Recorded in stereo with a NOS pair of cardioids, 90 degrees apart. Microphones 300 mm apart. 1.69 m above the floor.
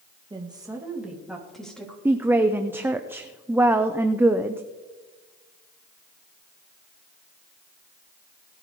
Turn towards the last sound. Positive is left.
turn(degrees=-5)